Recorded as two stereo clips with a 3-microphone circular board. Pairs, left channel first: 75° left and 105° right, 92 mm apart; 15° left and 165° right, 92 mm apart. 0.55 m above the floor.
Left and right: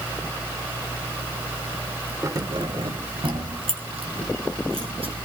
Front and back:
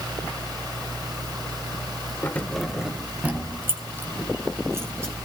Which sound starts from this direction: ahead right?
Keys jangling, at 2.2 s.